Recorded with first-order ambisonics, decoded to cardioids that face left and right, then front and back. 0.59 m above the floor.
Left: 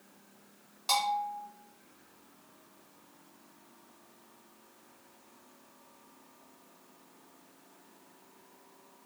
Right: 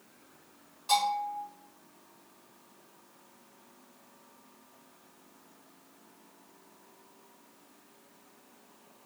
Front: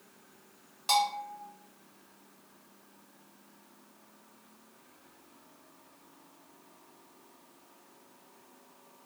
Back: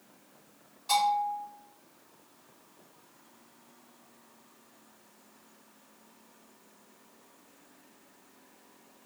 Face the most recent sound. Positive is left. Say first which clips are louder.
# right 2 dB, back 2 dB
turn(degrees=40)